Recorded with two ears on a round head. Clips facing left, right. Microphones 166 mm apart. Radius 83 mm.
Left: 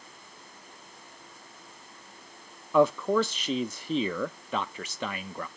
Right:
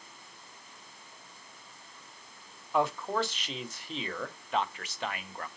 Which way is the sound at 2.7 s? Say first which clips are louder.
Left 7 dB; 80° left.